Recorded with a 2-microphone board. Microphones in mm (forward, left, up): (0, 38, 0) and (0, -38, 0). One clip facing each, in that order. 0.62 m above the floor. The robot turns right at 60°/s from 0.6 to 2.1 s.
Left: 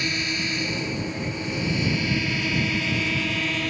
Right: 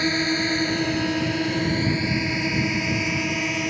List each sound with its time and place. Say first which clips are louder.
0.0 s a drone: right 5 dB; 45° right (ahead or behind); by 3.7 s 10° right (ahead or behind)